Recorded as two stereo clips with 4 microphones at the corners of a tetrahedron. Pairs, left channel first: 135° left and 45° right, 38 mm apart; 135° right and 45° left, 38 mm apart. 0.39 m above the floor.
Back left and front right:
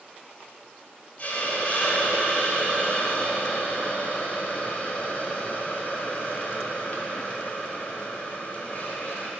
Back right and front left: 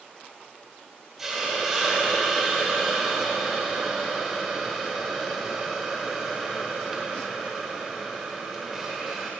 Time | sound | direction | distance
1.2 | a hiss | 120° left | 1.1 m